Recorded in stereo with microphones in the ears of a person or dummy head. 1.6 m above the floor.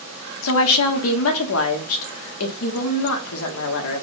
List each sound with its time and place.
0.4 s a woman speaking: 80° left, 0.9 m